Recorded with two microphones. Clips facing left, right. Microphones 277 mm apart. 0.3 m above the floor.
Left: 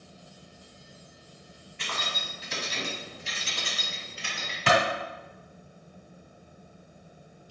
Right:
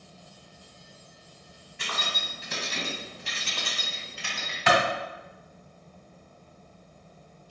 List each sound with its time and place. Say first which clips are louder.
1.8 s keys jangling: right 1 dB; 50° right (ahead or behind), 1.4 m; by 4.6 s 55° right (ahead or behind), 1.6 m
4.7 s a clap: even; 35° left (ahead or behind), 1.5 m